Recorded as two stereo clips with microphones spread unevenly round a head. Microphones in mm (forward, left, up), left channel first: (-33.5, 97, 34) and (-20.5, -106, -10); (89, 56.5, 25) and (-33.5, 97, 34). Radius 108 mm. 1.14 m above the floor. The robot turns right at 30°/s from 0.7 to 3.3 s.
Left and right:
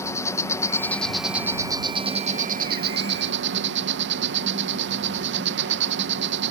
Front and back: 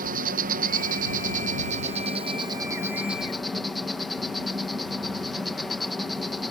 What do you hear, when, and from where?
0.0 s an insect: 175° left; by 6.5 s 105° right